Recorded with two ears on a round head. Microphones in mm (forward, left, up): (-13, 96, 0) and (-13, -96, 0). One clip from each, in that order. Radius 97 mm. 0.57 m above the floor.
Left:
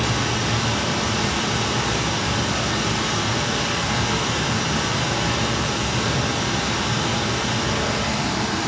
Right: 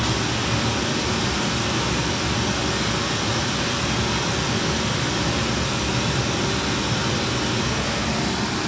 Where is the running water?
35° left (ahead or behind), 1.2 m.